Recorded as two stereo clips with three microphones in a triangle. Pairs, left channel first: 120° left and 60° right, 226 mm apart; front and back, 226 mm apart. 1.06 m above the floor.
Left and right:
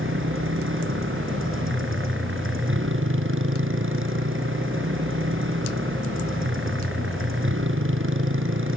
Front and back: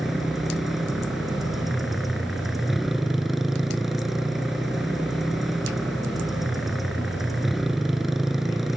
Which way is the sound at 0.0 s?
90° right.